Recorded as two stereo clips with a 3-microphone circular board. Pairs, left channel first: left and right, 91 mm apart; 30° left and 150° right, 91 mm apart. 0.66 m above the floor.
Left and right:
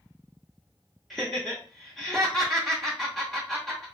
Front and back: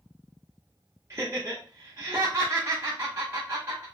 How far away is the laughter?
About 0.6 m.